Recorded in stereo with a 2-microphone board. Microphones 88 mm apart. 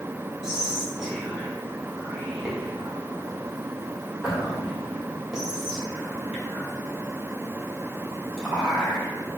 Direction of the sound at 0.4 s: 10° right (ahead or behind).